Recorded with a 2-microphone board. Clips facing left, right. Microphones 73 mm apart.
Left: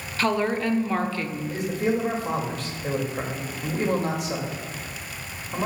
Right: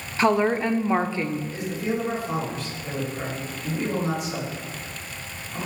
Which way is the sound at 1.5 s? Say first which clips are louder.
Left 3 dB; 80° left.